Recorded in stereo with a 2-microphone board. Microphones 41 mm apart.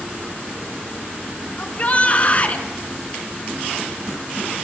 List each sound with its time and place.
1.6 s a shout: 30° left (ahead or behind), 2 m